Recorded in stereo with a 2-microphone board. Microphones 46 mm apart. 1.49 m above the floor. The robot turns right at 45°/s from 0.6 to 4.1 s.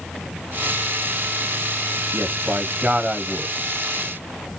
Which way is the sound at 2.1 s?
65° right.